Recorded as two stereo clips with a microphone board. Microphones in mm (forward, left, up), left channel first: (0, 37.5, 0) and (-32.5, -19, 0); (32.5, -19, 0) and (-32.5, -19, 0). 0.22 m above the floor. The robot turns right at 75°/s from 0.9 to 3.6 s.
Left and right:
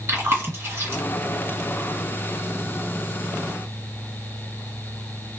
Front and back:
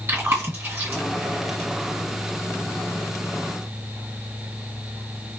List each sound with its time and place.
0.1 s chewing: 145° right, 1.8 m; by 1.0 s 135° right, 1.8 m